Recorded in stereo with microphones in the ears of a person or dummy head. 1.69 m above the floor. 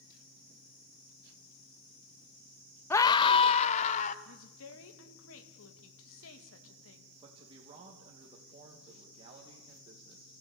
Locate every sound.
2.9 s a scream: 20° left (ahead or behind), 0.6 m; by 4.2 s 45° left (ahead or behind), 1.5 m
4.2 s a woman speaking: 85° left, 2.5 m
7.2 s a man speaking: 30° right (ahead or behind), 2.5 m